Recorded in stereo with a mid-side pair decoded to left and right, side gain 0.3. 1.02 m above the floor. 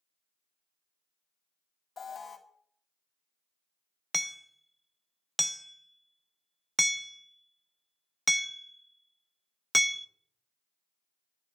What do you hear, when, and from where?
2.0 s an alarm: 50° left, 1.9 m
4.1 s hammering: 5° left, 0.7 m